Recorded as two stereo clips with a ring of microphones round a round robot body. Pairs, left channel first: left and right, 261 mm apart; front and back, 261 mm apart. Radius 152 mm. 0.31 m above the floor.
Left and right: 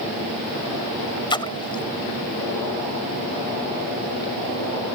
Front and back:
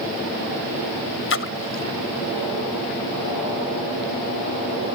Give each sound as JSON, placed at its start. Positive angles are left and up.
{"t": 1.3, "sound": "a splash", "azimuth_deg": 20}